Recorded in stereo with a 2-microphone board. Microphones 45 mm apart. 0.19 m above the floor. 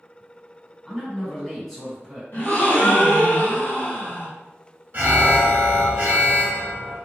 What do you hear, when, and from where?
0.8 s a man speaking: 5° left (ahead or behind), 1.6 m
2.3 s a gasp: 55° left (ahead or behind), 1.6 m
4.9 s an alarm: 50° right (ahead or behind), 1.2 m